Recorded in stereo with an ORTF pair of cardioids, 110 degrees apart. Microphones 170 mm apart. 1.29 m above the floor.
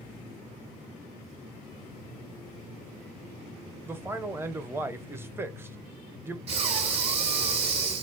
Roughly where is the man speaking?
Ahead.